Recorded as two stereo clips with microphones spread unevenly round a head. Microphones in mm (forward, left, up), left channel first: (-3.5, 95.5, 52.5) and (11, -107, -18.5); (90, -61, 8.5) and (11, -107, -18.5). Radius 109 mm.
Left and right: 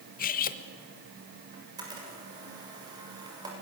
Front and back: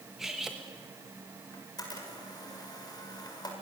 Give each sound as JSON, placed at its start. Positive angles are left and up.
{"t": 0.2, "sound": "cutlery clinking", "azimuth_deg": 110, "distance_m": 1.1}
{"t": 1.5, "sound": "a camera shutter", "azimuth_deg": -15, "distance_m": 7.0}